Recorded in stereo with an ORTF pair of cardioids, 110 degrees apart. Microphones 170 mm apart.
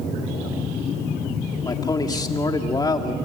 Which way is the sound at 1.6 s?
25° left.